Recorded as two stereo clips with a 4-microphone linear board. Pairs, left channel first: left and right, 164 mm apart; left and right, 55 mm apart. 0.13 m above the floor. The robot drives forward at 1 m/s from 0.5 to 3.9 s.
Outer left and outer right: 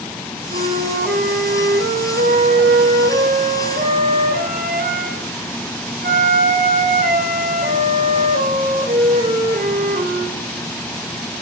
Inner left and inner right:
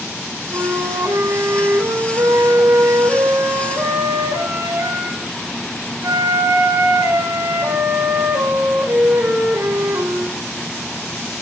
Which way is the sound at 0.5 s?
80° right.